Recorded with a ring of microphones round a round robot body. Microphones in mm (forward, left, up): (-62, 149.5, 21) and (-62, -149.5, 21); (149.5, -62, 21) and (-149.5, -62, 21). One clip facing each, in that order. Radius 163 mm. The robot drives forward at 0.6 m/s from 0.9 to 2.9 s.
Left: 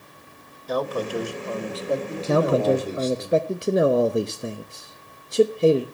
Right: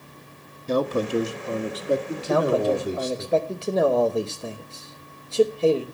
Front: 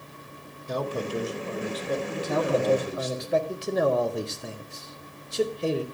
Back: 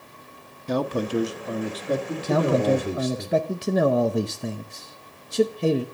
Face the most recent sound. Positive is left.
turn(degrees=165)